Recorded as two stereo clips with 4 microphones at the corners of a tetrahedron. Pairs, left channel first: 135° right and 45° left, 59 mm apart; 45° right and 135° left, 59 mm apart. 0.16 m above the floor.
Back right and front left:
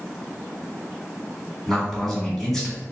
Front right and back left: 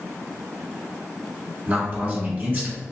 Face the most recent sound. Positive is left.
turn(degrees=140)